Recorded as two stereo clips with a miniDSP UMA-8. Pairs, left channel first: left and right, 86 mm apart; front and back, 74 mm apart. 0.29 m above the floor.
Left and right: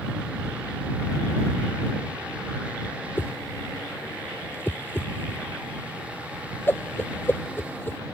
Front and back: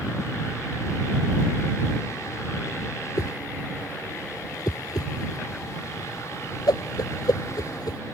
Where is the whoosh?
25° left.